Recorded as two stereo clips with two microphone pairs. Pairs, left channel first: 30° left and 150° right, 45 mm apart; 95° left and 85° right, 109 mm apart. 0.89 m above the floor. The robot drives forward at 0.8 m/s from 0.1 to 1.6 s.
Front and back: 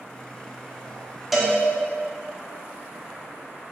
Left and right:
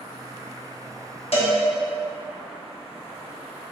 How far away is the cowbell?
About 1.3 m.